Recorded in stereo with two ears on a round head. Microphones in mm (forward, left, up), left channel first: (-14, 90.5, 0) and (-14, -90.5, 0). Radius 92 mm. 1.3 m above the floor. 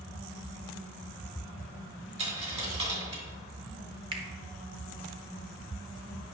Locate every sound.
2.2 s a dropped coin: 30° right (ahead or behind), 2 m
4.1 s a finger snap: 25° right (ahead or behind), 1.1 m